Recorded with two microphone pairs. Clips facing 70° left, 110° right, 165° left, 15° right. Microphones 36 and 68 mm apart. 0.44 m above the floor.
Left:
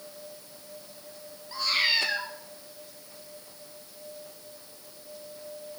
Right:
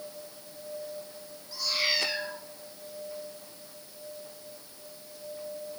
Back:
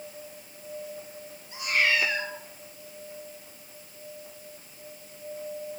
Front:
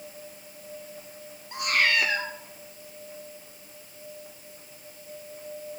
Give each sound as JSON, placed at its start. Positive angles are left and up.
{"t": 1.5, "sound": "a cat meowing", "azimuth_deg": 15, "distance_m": 5.0}